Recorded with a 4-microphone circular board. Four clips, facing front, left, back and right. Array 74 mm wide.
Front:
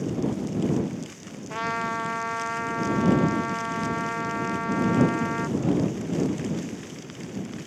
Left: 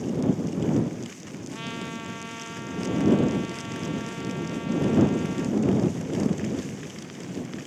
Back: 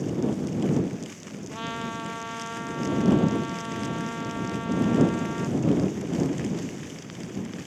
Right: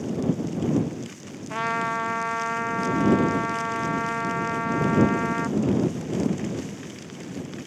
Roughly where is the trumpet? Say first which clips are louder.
Right 11 dB, front 6 dB; ahead right.